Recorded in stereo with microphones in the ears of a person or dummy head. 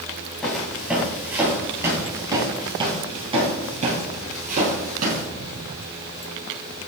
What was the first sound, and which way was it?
Footsteps, centre (ahead or behind).